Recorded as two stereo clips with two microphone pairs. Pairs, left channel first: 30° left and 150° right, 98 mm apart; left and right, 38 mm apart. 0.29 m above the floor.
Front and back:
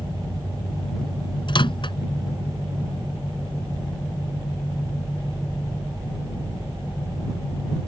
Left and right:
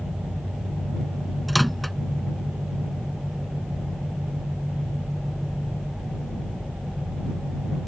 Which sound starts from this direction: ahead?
A microwave, at 1.5 s.